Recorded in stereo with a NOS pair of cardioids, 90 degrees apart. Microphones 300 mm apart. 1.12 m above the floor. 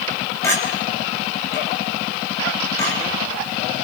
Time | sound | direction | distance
0.4 | a clink | 10° left | 5.5 m